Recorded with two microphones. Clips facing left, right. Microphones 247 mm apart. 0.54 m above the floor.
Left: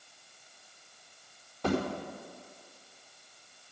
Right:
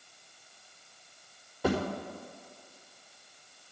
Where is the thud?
5° right (ahead or behind), 5 m.